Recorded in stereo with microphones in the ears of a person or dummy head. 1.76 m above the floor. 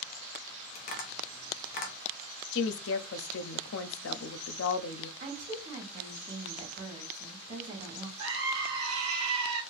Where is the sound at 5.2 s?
45° right (ahead or behind), 1.3 m.